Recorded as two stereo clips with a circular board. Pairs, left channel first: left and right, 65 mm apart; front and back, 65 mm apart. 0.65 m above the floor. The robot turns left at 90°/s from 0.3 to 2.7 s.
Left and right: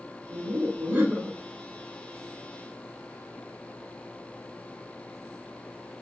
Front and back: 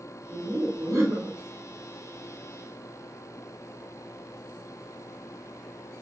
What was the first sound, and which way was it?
Laughter, 85° right.